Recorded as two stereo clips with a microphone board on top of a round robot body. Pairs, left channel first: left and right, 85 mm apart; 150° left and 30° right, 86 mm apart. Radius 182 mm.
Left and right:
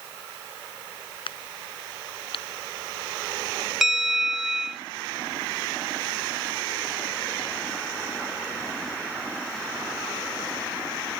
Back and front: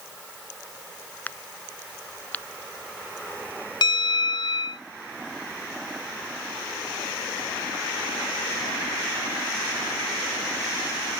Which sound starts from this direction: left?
A crack, at 1.3 s.